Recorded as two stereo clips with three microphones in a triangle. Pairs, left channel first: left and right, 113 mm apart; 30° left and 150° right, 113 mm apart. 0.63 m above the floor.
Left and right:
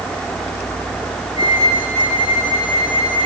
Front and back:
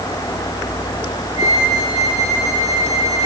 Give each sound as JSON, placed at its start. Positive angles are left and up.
{"t": 1.4, "sound": "a flute", "azimuth_deg": 50, "distance_m": 7.5}